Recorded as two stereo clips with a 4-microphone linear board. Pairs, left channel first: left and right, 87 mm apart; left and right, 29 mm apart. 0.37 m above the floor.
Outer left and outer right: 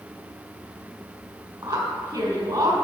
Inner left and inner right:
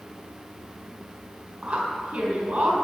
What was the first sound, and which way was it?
A woman speaking, 55° right (ahead or behind).